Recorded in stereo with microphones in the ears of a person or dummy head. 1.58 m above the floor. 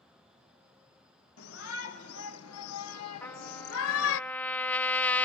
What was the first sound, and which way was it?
A shout, 70° left (ahead or behind).